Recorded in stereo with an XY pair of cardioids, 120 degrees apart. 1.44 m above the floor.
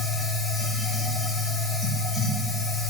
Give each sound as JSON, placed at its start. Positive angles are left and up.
{"t": 0.0, "sound": "a machine running", "azimuth_deg": 15, "distance_m": 3.0}